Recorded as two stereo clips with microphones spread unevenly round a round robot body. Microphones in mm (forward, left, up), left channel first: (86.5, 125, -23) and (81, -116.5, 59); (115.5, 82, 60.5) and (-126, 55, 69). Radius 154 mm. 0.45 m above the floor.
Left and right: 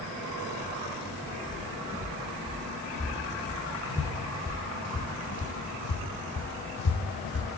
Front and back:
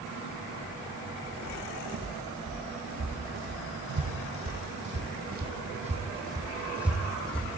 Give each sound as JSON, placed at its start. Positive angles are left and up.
{"t": 1.4, "sound": "footsteps", "azimuth_deg": -170, "distance_m": 3.0}